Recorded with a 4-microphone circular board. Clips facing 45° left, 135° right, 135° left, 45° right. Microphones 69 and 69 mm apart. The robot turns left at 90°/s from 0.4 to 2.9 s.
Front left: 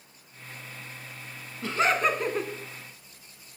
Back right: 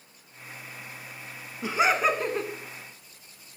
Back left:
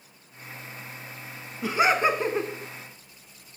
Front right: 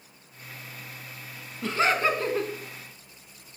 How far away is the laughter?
About 1.0 m.